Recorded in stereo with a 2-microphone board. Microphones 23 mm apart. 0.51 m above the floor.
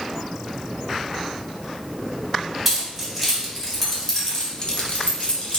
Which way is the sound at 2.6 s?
5° right (ahead or behind).